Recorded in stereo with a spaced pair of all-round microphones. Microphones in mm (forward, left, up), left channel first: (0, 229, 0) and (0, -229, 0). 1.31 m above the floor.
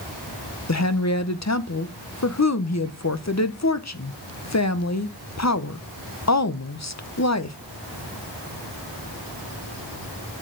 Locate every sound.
0.7 s a woman speaking: 35° left (ahead or behind), 1.0 m